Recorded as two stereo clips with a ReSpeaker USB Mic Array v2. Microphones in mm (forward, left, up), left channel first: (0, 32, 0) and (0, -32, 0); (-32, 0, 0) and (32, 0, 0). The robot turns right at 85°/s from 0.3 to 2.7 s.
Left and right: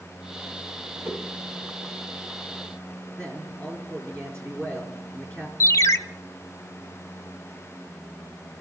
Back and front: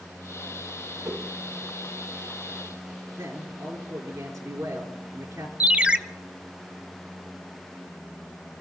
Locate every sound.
1.0 s a whoosh: 35° right, 5.5 m; by 1.3 s 15° right, 5.5 m
3.2 s a man speaking: 20° left, 5 m
5.6 s a ringtone: 70° left, 0.7 m